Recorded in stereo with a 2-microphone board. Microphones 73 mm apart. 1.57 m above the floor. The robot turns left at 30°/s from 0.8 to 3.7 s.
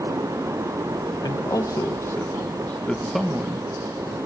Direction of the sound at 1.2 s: 60° left (ahead or behind).